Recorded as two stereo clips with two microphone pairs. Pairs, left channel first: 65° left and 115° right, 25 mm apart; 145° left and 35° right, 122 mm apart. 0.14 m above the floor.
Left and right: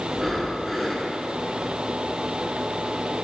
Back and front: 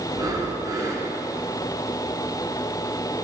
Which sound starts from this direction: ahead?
Breathing, at 0.1 s.